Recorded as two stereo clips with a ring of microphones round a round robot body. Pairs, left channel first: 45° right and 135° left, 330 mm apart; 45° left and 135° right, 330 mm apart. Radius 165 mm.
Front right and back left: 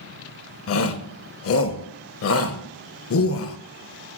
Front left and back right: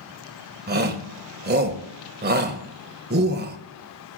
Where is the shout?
80° right, 1.4 m.